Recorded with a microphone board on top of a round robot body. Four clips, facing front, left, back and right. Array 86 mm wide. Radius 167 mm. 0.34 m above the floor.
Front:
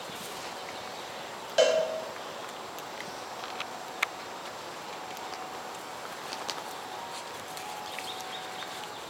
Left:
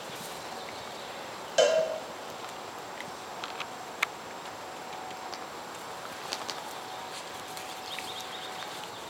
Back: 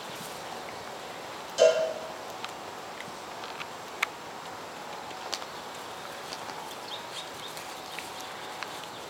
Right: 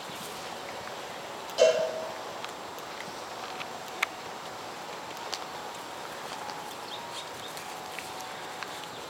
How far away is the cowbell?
About 1.7 m.